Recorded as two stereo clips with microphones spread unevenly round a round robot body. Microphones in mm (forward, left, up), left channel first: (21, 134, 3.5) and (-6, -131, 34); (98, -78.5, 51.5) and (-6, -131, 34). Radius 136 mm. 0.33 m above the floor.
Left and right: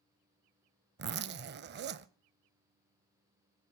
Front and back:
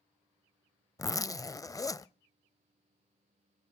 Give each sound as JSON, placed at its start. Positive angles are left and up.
{"t": 1.0, "sound": "a zipper", "azimuth_deg": -40, "distance_m": 0.6}